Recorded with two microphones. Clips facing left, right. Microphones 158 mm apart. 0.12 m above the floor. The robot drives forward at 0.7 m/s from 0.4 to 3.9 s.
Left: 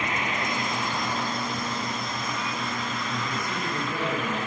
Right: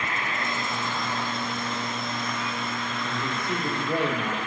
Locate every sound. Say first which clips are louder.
0.0 s an insect: left 2 dB; 20° left (ahead or behind), 0.9 m; by 4.5 s 5° left (ahead or behind), 3 m
3.0 s a man speaking: right 1 dB; 60° right (ahead or behind), 6 m; by 4.4 s 65° right (ahead or behind), 5.5 m